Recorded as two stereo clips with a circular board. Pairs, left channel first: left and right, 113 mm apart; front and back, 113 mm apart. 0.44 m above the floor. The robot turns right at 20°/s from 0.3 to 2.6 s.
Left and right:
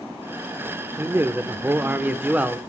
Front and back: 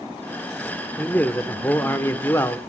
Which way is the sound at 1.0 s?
55° right.